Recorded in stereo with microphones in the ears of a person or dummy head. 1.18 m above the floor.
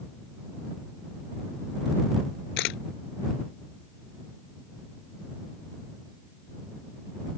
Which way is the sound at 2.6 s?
75° left (ahead or behind).